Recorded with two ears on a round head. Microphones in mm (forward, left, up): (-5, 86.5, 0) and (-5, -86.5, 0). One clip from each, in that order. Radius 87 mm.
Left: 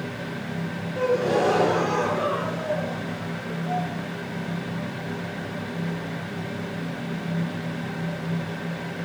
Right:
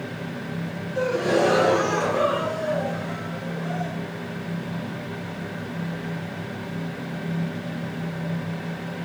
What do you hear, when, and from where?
0.9 s a gasp: 80° right, 6 m